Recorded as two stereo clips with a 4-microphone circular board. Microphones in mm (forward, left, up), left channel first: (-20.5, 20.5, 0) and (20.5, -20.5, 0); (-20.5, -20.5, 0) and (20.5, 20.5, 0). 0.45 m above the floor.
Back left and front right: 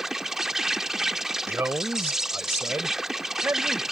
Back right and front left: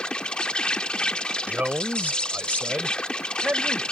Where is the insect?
110° right.